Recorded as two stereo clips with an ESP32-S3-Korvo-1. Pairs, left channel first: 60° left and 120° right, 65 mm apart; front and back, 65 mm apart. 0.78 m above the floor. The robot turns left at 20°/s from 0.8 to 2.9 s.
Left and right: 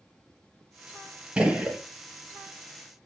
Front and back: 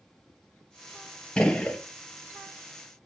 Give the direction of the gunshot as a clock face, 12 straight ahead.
2 o'clock.